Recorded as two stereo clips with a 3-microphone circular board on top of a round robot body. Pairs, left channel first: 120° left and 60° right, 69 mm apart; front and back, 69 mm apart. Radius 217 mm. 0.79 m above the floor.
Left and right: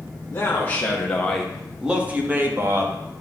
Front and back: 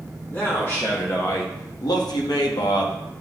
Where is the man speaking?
60° left, 1.4 m; by 3.0 s 10° right, 1.4 m.